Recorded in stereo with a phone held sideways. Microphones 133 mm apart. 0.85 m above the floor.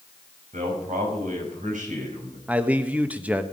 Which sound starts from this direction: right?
A man speaking, at 0.5 s.